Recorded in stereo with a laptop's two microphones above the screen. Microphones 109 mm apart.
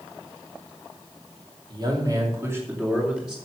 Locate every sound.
1.7 s a man speaking: 40° right (ahead or behind), 2.5 m; by 3.4 s 5° right (ahead or behind), 2.5 m